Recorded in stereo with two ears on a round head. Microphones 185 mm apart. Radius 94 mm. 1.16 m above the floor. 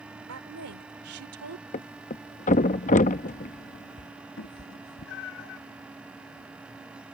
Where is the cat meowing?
60° left (ahead or behind).